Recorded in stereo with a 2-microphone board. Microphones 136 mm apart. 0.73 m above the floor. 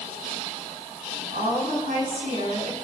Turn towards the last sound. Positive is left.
turn(degrees=-80)